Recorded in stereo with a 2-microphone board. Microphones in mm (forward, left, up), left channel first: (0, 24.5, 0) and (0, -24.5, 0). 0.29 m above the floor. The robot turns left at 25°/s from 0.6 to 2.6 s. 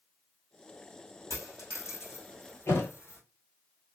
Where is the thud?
65° left (ahead or behind), 1.1 m.